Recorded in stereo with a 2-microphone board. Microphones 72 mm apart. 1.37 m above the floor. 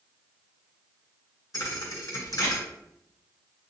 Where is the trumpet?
I don't hear a trumpet.